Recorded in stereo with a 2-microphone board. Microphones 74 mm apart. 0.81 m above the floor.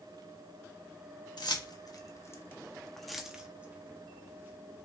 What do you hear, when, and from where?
1.4 s keys jangling: 70° left (ahead or behind), 1.0 m; by 4.8 s 35° right (ahead or behind), 1.6 m